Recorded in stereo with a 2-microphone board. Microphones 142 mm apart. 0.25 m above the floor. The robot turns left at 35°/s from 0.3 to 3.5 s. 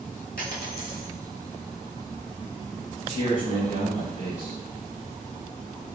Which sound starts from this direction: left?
A dropped coin, at 0.4 s.